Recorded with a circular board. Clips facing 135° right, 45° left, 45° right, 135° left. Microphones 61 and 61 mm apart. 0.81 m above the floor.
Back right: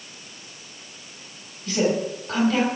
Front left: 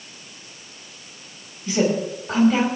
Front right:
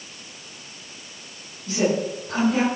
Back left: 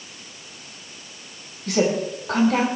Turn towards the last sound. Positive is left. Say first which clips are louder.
# front left 1 dB, back left 1 dB
turn(degrees=115)